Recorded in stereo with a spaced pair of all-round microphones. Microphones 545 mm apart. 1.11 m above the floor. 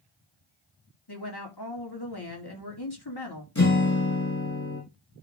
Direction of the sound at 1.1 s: 45° left (ahead or behind).